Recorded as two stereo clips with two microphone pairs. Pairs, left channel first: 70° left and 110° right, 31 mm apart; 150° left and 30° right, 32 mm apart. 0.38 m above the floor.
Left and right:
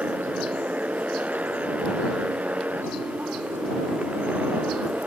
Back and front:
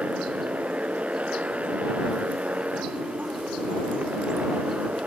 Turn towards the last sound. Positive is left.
turn(degrees=-75)